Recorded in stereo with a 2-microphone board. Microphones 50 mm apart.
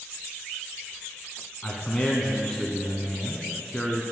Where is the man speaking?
10° left (ahead or behind), 1.7 m.